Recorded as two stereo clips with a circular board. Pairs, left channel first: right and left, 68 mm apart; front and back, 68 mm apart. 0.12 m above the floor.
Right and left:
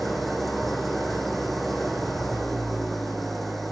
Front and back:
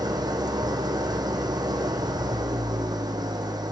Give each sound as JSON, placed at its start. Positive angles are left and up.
{"t": 0.0, "sound": "an engine running", "azimuth_deg": 180, "distance_m": 2.0}